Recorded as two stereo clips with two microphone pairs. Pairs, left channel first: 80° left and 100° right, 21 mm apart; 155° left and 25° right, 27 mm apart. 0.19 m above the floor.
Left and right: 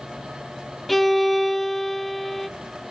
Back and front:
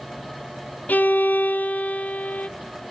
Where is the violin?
170° left, 0.7 m.